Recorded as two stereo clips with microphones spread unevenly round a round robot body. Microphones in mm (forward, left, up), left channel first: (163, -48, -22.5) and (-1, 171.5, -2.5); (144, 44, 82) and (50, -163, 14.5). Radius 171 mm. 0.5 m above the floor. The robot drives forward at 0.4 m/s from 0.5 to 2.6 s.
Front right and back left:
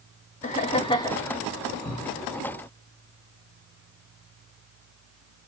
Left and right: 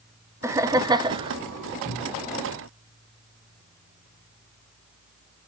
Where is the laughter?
85° right, 0.8 m; by 1.4 s 130° right, 0.8 m.